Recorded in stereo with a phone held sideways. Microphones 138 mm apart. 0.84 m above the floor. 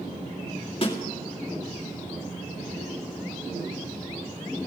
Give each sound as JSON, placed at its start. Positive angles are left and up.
{"t": 0.8, "sound": "a snare drum", "side_deg": 40, "distance_m": 2.0}